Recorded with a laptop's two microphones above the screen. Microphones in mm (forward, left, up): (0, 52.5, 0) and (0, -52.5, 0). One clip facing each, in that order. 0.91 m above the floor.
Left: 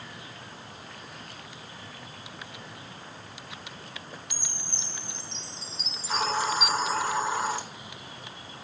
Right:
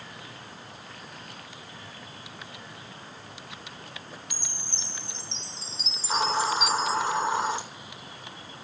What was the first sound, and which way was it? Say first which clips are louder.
A chime: even; 45° left (ahead or behind).